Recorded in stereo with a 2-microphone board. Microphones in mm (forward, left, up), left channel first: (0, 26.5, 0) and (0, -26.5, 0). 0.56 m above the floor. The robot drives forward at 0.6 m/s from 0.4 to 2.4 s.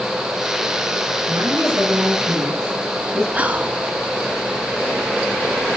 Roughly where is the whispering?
Right.